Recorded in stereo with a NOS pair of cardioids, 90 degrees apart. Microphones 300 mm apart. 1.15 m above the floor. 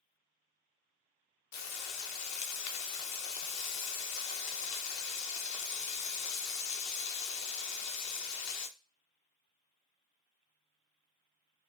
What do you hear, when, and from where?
1.5 s frying: 65° left, 0.8 m